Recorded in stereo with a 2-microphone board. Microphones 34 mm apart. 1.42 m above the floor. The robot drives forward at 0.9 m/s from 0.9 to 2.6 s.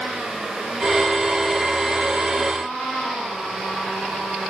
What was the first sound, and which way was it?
Only background noise.